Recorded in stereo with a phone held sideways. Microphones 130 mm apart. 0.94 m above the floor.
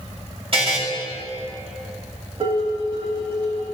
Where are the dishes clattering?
50° right (ahead or behind), 4 m.